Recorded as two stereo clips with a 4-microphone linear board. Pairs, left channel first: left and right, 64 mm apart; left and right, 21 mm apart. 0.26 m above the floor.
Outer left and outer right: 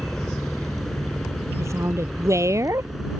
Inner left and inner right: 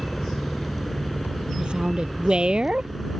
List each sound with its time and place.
0.0 s a helicopter: 5° left (ahead or behind); by 3.2 s 5° right (ahead or behind)
1.6 s a woman speaking: 50° right (ahead or behind)